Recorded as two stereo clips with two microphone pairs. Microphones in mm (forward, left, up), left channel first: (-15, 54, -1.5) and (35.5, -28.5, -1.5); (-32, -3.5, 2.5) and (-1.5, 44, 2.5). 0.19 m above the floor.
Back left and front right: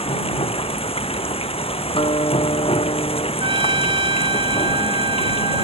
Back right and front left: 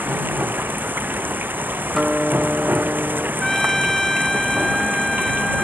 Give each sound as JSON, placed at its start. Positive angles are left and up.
{"t": 0.0, "sound": "running water", "azimuth_deg": 110}
{"t": 1.9, "sound": "a guitar", "azimuth_deg": 140}
{"t": 3.4, "sound": "a trumpet", "azimuth_deg": -40}